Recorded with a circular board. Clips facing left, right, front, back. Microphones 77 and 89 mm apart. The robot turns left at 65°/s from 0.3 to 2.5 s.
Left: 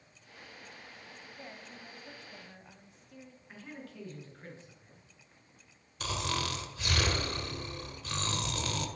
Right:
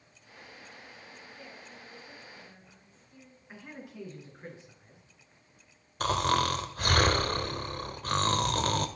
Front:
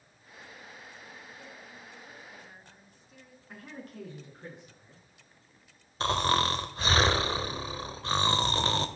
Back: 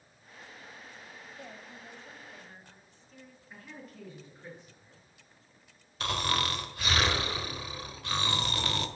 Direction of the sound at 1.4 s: 155° left.